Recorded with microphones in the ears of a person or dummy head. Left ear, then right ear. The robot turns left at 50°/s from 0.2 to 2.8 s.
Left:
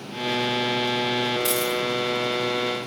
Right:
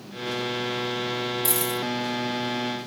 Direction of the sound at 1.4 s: 5° right (ahead or behind).